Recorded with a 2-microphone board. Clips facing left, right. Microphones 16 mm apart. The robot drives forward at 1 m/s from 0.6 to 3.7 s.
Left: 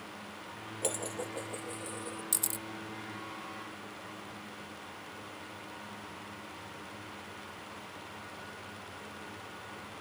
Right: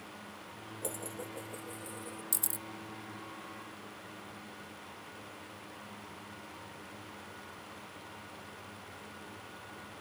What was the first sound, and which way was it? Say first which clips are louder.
Dishes clattering: left 5 dB; 45° left (ahead or behind).